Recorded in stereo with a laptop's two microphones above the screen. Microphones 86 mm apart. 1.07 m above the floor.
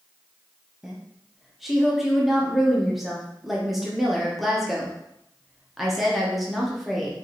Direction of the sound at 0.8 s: 5° right (ahead or behind).